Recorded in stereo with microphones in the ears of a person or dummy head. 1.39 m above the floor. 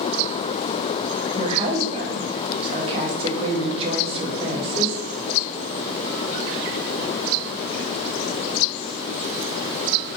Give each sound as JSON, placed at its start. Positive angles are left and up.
{"t": 1.3, "sound": "a woman speaking", "side_deg": -30, "distance_m": 0.8}